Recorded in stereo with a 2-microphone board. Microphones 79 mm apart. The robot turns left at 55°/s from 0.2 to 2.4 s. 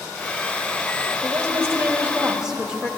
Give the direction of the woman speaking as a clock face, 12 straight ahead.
3 o'clock.